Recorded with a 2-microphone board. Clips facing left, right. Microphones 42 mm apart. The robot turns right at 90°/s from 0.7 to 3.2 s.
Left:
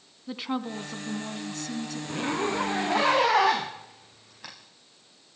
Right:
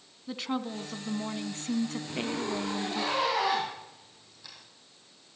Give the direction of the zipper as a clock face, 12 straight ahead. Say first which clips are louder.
Left 4 dB; 12 o'clock.